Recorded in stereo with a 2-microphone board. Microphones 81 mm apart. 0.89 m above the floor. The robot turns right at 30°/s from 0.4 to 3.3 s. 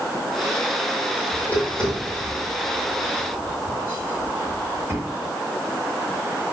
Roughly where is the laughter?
No laughter in this recording.